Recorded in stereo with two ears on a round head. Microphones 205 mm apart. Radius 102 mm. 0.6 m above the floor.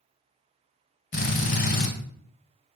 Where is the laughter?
I don't hear laughter.